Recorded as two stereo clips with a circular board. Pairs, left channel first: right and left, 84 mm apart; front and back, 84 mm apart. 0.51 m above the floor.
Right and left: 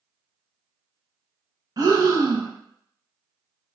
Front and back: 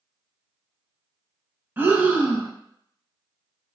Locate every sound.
1.8 s breathing: 115° left, 0.5 m